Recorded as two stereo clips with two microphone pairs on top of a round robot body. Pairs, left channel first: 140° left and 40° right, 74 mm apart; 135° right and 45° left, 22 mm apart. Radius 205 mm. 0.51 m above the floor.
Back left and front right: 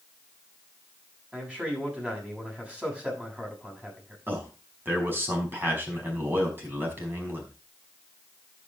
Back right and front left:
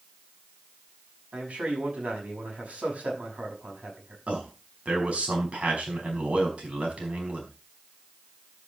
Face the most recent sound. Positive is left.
turn(degrees=25)